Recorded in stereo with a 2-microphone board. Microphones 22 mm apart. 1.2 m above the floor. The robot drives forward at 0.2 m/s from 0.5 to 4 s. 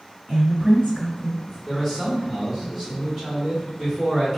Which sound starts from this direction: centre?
A man speaking, at 1.7 s.